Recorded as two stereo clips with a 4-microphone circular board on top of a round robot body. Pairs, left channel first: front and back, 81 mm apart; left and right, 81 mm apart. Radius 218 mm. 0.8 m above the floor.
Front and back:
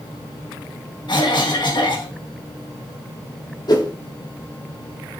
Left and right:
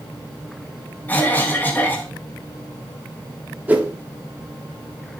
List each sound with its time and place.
1.1 s a cough: 25° left, 1.8 m
3.7 s a whoosh: 20° right, 1.8 m